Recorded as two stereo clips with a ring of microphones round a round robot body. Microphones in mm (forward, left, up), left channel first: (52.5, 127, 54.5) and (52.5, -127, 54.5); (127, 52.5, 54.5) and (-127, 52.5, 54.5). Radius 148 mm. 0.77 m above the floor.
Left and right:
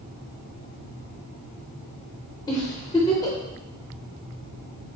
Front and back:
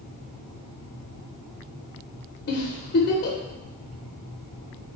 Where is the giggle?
25° left, 0.5 m.